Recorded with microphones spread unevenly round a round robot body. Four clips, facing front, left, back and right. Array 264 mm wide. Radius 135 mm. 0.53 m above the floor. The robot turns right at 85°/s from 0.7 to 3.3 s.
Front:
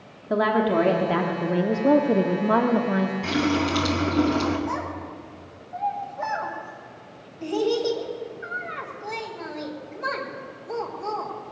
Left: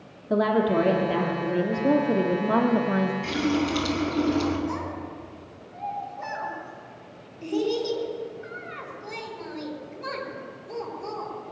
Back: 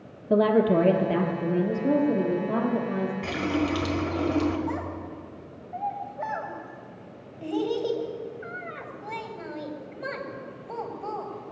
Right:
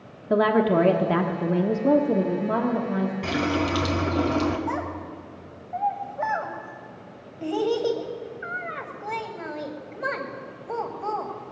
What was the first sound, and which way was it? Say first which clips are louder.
A woman speaking: right 2 dB, back 1 dB; 135° right.